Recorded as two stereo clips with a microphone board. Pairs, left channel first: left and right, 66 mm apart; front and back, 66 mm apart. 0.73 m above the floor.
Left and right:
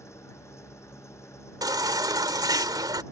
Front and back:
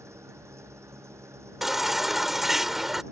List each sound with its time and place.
0.0 s an engine running: 135° left
1.6 s a baby crying: 95° right